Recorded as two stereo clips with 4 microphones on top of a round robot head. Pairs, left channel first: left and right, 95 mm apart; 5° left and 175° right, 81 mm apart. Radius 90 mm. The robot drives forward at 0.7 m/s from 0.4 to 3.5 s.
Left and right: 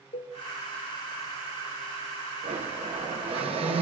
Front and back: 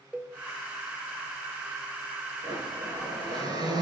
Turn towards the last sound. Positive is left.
turn(degrees=-125)